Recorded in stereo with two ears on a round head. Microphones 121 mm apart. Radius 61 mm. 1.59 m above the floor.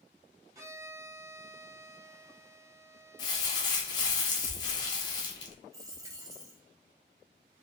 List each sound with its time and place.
0.6 s a violin: 20° right (ahead or behind), 0.9 m
3.2 s crumpling: 30° left (ahead or behind), 0.9 m
5.7 s a dropped coin: 25° right (ahead or behind), 0.9 m